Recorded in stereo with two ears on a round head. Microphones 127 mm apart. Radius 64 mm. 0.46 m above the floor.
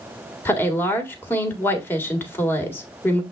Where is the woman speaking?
15° left (ahead or behind), 1.7 m.